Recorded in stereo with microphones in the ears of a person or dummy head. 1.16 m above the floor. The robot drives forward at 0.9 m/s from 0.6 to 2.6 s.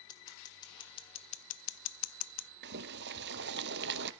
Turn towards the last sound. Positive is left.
turn(degrees=-60)  # may be behind; listen again after turning